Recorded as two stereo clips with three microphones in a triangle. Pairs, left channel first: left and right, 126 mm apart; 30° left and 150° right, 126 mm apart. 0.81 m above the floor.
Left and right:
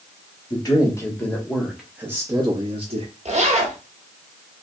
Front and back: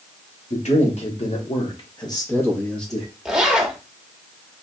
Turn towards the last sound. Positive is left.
turn(degrees=-65)